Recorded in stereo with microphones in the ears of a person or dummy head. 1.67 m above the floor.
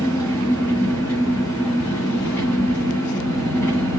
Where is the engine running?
10° left (ahead or behind), 1.4 m.